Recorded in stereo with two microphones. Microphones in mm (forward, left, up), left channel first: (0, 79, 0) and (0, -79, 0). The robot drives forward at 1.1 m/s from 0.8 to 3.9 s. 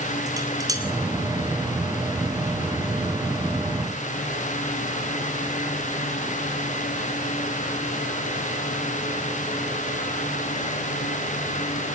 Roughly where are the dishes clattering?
Right.